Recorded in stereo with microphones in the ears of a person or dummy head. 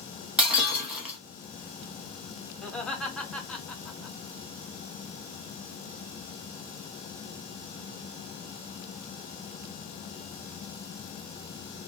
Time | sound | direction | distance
0.4 | breaking glass | 5° right (ahead or behind) | 0.9 m
2.6 | laughter | centre (ahead or behind) | 1.1 m